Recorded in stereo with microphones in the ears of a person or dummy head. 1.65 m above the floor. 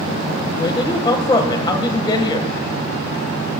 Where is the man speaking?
20° left (ahead or behind), 1.4 m.